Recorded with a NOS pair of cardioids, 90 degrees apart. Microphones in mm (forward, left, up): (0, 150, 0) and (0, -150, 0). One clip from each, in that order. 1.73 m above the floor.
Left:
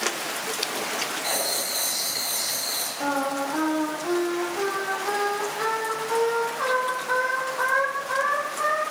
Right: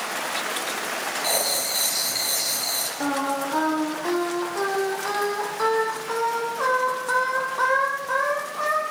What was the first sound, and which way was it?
Writing, 25° right.